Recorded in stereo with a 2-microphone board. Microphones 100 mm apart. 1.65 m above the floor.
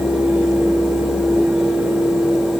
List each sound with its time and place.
Only background noise.